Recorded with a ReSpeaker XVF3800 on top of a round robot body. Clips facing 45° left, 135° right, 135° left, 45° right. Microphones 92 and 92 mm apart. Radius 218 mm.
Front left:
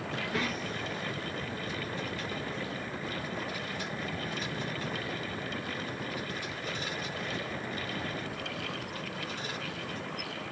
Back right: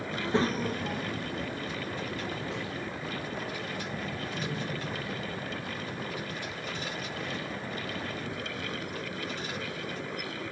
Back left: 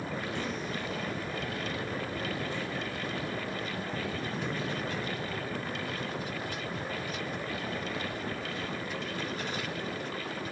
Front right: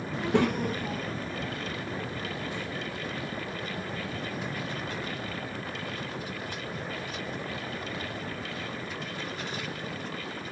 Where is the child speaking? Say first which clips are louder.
Back right 7 dB, front right 12 dB; 60° right, 0.6 m; by 9.8 s 130° right, 7 m.